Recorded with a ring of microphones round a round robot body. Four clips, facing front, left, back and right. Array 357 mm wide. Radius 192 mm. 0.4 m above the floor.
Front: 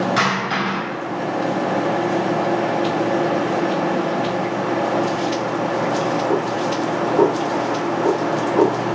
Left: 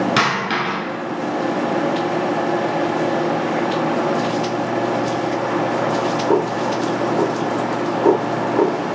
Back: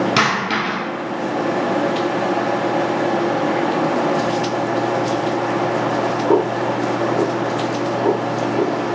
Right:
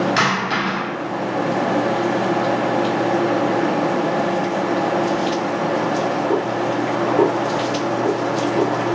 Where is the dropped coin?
145° left, 1.3 m.